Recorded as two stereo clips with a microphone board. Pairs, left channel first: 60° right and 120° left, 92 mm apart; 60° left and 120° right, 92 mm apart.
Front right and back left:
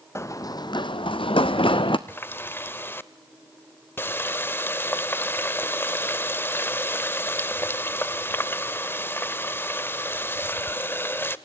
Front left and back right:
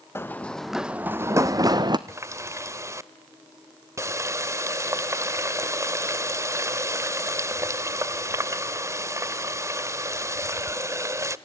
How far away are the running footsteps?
About 0.8 m.